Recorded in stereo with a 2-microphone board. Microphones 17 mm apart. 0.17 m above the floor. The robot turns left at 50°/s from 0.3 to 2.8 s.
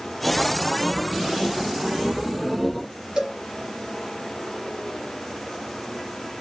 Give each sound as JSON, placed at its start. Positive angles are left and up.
{"t": 3.2, "sound": "a cowbell", "side_deg": -60, "distance_m": 1.4}